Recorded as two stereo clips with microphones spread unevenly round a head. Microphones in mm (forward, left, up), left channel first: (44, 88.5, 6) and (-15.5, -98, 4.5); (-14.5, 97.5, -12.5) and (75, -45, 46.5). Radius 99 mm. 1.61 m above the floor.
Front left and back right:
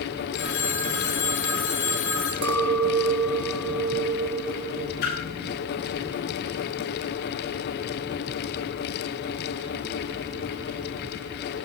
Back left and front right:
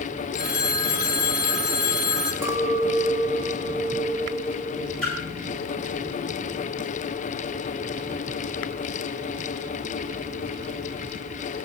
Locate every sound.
0.3 s a phone ringing: 50° left, 4 m
2.4 s a clink: 120° right, 1.4 m
5.0 s a splash: 35° left, 8.5 m